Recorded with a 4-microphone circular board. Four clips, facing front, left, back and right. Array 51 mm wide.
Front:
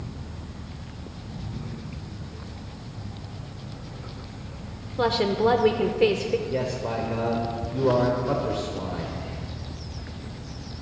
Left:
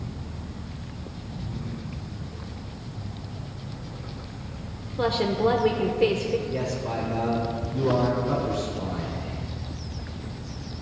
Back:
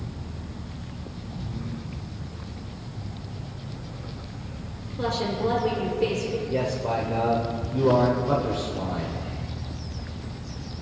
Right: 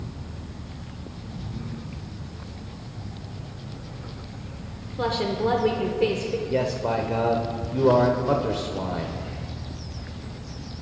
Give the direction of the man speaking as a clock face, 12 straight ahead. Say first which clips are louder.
Right 4 dB, back 2 dB; 3 o'clock.